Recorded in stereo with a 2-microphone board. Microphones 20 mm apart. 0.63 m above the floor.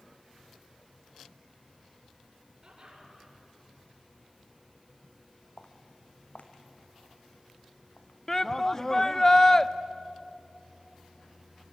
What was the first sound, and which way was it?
Laughter, 35° right (ahead or behind).